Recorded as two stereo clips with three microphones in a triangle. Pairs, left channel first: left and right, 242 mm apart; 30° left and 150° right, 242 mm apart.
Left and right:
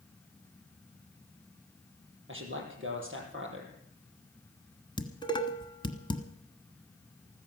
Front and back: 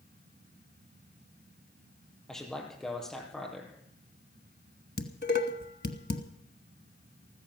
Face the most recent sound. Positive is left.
turn(degrees=30)